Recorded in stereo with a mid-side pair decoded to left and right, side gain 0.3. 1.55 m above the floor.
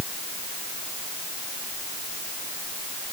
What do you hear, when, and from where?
Only background noise.